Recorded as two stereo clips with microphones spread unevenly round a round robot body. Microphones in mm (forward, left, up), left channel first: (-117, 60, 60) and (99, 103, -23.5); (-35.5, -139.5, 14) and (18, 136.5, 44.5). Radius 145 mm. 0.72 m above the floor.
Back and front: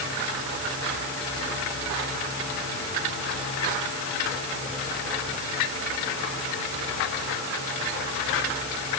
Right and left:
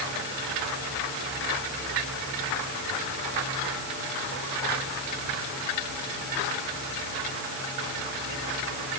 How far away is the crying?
No crying in this recording.